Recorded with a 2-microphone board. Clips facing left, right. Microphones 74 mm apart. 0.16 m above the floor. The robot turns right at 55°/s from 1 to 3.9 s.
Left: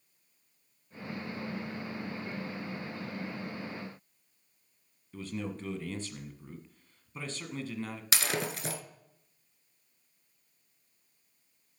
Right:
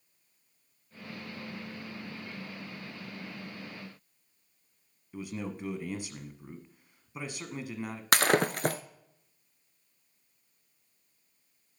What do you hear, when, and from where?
5.1 s a man speaking: 15° right (ahead or behind), 1.2 m
8.1 s breaking glass: 50° right (ahead or behind), 0.6 m